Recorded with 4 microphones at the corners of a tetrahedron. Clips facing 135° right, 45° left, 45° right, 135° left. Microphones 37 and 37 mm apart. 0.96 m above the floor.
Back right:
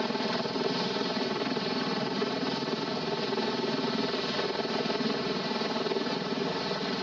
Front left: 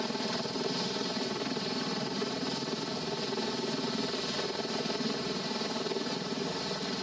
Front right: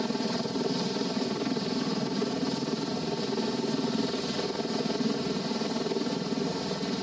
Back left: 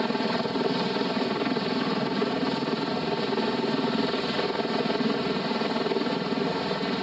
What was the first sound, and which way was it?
A helicopter, 160° left.